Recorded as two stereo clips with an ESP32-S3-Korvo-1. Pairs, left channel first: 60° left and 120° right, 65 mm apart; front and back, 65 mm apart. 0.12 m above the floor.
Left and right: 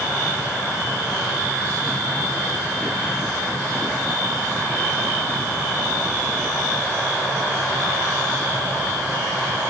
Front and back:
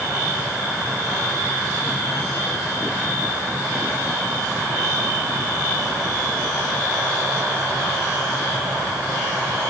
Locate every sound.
Only background noise.